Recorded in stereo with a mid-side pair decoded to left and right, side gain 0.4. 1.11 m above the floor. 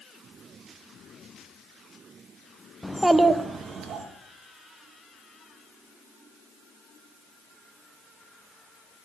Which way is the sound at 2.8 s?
5° left.